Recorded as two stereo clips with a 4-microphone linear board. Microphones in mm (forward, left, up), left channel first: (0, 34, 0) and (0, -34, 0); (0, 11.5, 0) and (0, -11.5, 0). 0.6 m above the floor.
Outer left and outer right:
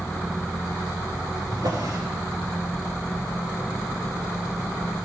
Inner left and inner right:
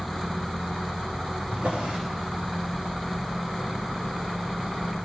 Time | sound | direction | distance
1.5 | a drawer | 65° right (ahead or behind) | 6.5 m